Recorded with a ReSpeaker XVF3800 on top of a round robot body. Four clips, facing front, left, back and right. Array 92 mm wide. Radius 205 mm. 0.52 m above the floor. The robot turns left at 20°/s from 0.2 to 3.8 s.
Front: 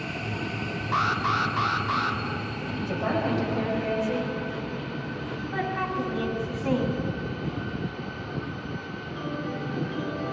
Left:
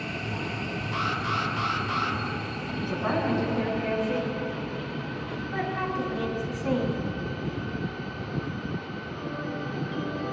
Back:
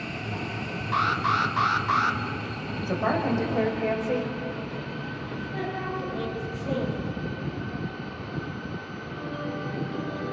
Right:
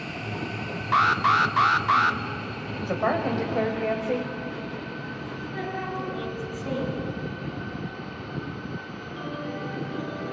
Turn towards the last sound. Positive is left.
turn(degrees=25)